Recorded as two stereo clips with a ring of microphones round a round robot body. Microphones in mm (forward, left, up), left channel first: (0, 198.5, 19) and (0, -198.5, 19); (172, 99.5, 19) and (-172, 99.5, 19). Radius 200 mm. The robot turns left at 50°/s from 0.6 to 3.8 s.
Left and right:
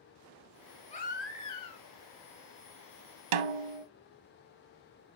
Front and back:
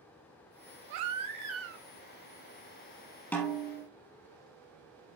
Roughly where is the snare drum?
Right.